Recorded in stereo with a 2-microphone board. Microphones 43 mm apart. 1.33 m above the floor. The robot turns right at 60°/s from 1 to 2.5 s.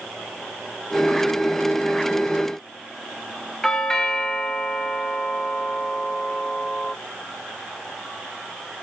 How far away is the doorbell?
About 1.4 m.